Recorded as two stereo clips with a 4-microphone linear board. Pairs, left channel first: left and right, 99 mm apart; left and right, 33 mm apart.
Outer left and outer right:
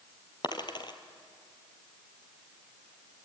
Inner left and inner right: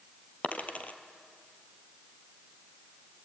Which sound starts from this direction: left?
A dropped coin, at 0.4 s.